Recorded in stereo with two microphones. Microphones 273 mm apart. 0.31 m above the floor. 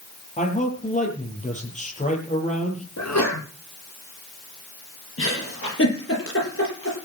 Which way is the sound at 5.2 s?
50° left (ahead or behind).